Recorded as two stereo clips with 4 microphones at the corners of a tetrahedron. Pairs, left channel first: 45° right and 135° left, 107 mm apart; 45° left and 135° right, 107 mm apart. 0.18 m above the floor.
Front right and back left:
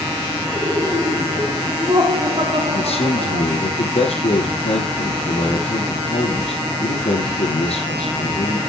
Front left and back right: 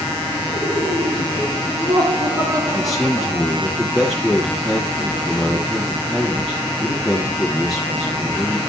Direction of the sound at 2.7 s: 45° right.